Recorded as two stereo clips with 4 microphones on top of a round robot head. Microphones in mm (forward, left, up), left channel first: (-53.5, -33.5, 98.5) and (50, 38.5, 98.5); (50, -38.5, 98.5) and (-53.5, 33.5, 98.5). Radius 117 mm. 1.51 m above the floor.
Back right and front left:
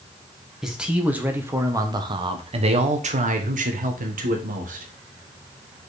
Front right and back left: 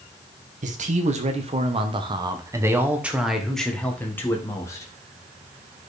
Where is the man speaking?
120° left, 1.6 m; by 4.9 s 30° left, 1.9 m.